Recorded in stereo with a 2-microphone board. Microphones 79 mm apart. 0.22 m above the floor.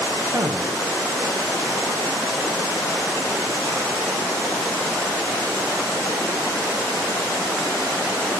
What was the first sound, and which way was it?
A man speaking, 45° right (ahead or behind).